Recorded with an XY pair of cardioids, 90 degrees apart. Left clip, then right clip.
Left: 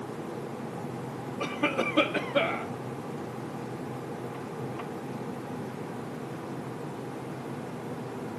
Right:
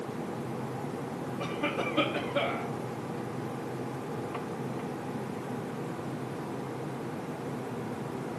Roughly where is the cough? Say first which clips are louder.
Left 4 dB; ahead left.